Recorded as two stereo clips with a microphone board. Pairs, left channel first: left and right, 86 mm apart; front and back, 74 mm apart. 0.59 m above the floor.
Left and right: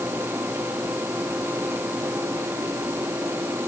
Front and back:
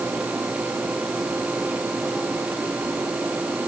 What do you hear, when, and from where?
Only background noise.